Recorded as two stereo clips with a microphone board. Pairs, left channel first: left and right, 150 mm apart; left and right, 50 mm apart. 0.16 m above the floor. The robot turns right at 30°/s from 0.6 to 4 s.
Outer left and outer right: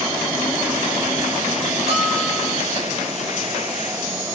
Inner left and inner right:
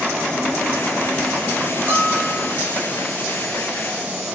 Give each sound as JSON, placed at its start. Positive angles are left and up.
{"t": 1.9, "sound": "a bell", "side_deg": -45, "distance_m": 6.0}